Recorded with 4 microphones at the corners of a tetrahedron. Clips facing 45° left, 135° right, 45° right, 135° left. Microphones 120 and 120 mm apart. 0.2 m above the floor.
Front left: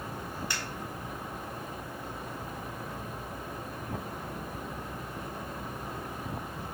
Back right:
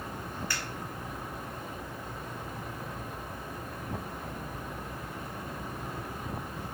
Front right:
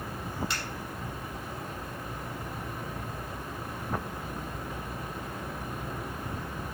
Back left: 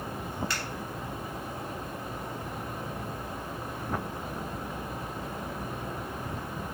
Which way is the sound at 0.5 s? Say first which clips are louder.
Back right 1 dB, back left 1 dB; 5° right.